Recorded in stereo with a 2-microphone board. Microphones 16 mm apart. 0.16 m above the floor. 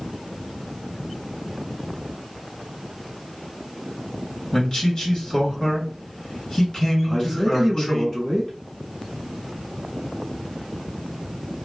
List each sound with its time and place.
4.5 s a man speaking: 45° left (ahead or behind), 1.9 m
7.0 s a man speaking: 10° left (ahead or behind), 1.0 m